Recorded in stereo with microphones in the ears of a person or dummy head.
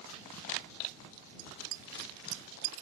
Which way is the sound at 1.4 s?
70° right (ahead or behind).